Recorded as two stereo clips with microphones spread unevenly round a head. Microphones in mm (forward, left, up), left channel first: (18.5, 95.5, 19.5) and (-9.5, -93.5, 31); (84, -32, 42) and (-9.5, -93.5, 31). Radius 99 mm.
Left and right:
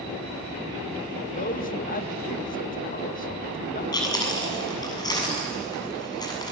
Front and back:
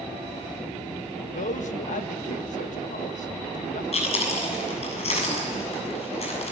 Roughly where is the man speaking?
Ahead left.